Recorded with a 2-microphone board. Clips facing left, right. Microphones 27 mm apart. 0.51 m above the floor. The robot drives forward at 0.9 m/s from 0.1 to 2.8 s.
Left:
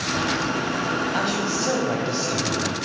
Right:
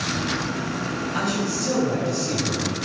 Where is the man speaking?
35° left (ahead or behind), 3.5 m; by 2.8 s 50° left (ahead or behind), 3 m.